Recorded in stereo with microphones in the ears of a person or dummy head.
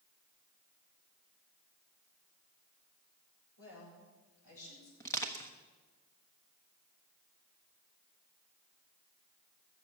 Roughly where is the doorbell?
I don't hear a doorbell.